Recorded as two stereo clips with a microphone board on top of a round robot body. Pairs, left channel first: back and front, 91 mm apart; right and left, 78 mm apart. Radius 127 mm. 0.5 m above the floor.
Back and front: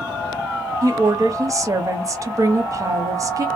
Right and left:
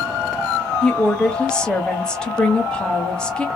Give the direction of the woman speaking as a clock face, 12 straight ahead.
1 o'clock.